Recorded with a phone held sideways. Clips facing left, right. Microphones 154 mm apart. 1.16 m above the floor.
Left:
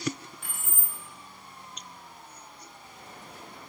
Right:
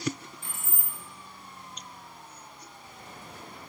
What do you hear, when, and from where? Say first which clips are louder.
0.4 s keys jangling: even; 65° left (ahead or behind), 1.5 m